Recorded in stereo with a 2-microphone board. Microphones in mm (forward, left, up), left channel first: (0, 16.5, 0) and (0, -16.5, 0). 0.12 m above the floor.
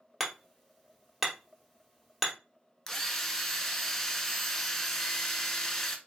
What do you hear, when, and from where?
0.2 s hammering: 5° right (ahead or behind), 1.5 m
2.9 s a drill: 15° left (ahead or behind), 0.7 m